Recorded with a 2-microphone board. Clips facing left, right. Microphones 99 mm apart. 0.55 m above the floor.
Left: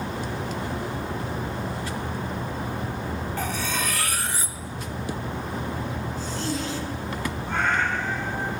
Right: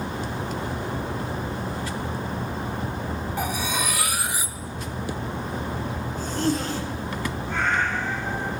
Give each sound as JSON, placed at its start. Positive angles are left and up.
{"t": 3.4, "sound": "cutlery clinking", "side_deg": -10, "distance_m": 0.6}
{"t": 6.2, "sound": "a zipper", "side_deg": -50, "distance_m": 1.5}
{"t": 7.5, "sound": "a cat meowing", "side_deg": 60, "distance_m": 6.0}